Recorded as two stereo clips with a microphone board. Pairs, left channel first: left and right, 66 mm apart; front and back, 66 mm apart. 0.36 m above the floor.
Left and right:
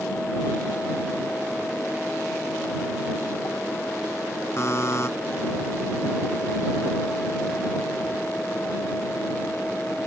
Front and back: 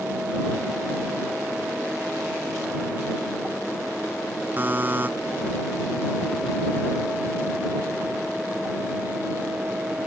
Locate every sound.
4.6 s a buzzer: 125° left